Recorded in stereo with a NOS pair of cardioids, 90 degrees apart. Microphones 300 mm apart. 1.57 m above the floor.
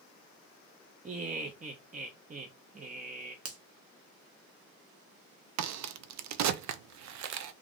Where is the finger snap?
50° right, 1.1 m.